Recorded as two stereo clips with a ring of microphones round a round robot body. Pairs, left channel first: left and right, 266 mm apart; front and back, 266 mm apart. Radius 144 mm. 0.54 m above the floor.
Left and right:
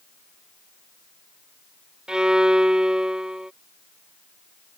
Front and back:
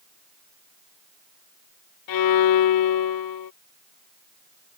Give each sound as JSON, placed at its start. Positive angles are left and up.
{"t": 2.1, "sound": "a violin", "azimuth_deg": -5}